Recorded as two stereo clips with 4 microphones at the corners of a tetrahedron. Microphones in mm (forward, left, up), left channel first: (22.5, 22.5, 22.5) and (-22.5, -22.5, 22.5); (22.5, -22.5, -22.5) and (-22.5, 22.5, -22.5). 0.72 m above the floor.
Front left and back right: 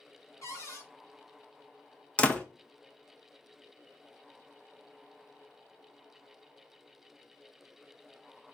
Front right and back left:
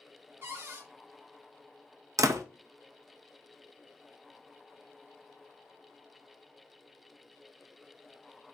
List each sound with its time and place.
0.4 s a cupboard door: 80° left, 1.5 m
2.2 s a door slam: 115° left, 0.6 m